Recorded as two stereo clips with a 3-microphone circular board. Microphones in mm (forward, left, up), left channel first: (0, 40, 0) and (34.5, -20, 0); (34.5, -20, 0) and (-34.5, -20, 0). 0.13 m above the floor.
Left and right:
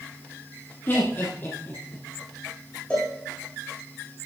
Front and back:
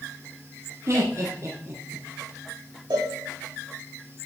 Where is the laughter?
165° left, 1.4 m.